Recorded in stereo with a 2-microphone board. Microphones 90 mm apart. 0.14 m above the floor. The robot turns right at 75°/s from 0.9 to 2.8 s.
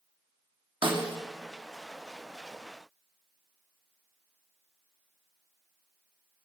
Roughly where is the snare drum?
Right.